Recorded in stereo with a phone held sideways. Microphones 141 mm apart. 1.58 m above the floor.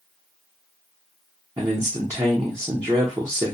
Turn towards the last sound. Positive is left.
turn(degrees=-25)  # may be behind; listen again after turning